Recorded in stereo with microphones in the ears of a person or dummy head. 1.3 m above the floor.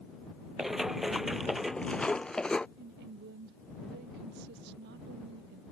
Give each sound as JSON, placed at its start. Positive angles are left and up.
{"t": 0.6, "sound": "running footsteps", "side_deg": -5}
{"t": 2.8, "sound": "a woman speaking", "side_deg": -55}